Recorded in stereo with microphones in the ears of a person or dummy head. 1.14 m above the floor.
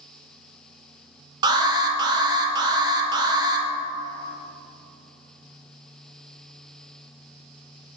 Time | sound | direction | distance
1.4 | an alarm | 20° right (ahead or behind) | 0.7 m